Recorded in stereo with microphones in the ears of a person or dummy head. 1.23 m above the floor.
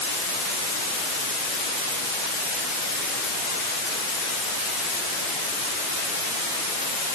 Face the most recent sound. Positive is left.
No sound to turn to.